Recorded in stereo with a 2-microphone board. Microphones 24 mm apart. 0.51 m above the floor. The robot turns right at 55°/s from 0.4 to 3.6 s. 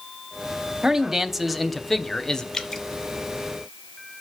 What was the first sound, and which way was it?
A man speaking, 40° right.